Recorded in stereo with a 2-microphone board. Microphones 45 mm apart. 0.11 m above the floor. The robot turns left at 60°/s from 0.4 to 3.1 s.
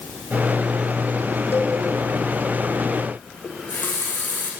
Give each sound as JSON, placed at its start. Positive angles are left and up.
{"t": 1.5, "sound": "a cowbell", "side_deg": 60, "distance_m": 6.5}
{"t": 3.4, "sound": "a running tap", "side_deg": 45, "distance_m": 5.5}